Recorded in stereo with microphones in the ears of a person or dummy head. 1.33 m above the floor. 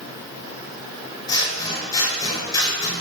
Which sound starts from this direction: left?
Scissors, at 1.3 s.